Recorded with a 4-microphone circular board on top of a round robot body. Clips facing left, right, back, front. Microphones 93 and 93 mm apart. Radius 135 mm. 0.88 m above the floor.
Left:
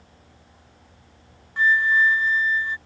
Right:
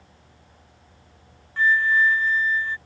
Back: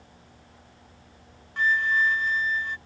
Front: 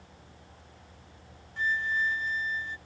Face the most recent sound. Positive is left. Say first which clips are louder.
# even, back 6 dB
turn(degrees=160)